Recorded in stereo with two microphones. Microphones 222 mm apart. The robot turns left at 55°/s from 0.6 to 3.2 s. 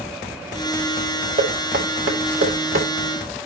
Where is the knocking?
35° right (ahead or behind), 1.4 m; by 2.9 s 60° right (ahead or behind), 1.4 m.